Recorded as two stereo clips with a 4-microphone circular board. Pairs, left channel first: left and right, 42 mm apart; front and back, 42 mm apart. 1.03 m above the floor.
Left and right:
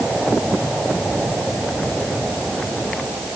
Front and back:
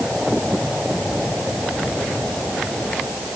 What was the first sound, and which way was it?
Only background noise.